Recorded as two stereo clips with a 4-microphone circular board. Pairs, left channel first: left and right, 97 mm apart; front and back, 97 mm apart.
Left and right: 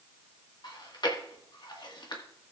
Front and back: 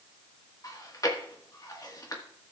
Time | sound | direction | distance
0.6 | chewing | 50° left | 1.6 m